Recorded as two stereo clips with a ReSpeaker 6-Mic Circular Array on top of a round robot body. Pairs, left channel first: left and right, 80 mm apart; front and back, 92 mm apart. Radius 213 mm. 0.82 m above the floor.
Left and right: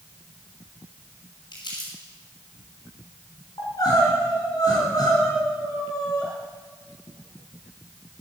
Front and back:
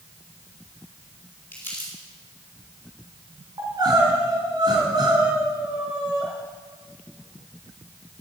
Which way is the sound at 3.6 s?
135° left.